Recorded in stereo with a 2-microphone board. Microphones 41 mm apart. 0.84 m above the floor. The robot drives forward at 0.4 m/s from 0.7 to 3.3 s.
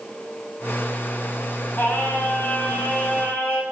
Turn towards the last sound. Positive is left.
turn(degrees=80)